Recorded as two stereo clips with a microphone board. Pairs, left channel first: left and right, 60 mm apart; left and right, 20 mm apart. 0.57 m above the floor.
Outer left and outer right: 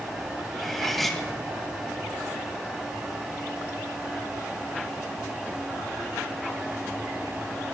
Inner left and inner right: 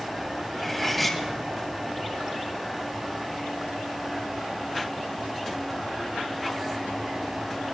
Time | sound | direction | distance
0.5 | cutlery clinking | 5° left (ahead or behind) | 2 m